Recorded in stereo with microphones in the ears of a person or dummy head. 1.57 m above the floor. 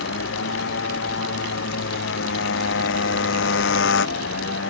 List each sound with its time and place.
0.0 s a motorcycle: 70° left (ahead or behind)